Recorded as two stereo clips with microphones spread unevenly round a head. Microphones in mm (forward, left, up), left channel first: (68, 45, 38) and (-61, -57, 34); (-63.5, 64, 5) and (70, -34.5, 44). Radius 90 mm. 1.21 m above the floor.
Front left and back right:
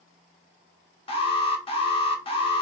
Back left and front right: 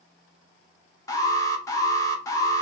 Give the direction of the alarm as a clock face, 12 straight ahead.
9 o'clock.